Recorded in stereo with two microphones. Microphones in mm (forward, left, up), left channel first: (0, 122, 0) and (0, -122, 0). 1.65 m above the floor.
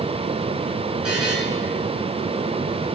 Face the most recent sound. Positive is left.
turn(degrees=-75)  # may be behind; listen again after turning